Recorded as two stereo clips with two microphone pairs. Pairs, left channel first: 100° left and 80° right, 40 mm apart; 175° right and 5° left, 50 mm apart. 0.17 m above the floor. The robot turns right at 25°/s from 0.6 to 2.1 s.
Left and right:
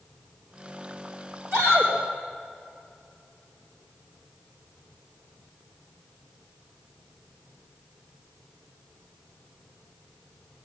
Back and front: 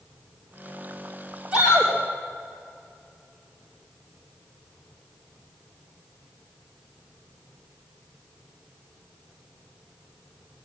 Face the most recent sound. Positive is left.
turn(degrees=-50)